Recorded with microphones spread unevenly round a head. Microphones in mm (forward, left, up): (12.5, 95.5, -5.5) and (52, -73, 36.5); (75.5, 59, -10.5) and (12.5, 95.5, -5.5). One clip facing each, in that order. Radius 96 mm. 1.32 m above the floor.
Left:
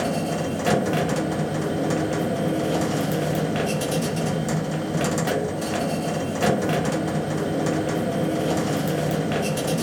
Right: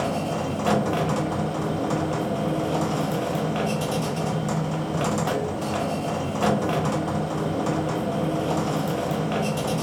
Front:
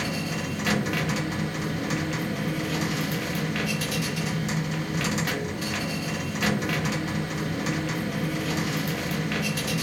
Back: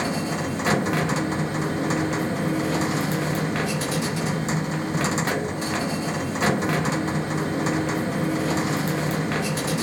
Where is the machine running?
175° right, 0.7 m.